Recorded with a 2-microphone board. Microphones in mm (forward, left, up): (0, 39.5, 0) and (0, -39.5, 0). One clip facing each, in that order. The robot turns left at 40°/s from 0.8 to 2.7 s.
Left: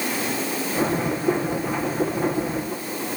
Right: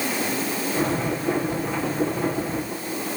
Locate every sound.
Only background noise.